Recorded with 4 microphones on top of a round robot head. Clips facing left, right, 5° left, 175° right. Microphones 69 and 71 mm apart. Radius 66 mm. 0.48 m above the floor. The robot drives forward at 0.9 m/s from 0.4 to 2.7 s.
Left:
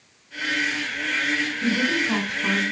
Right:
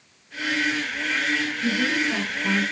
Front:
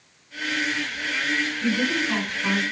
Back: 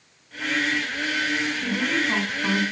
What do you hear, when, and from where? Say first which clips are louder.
1.6 s a woman speaking: left 1 dB, front 2 dB; 105° left, 5.5 m; by 2.6 s 110° left, 6 m